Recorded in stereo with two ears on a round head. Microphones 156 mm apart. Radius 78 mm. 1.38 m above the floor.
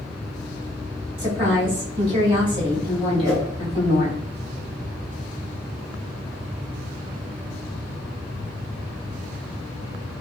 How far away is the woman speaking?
About 2 m.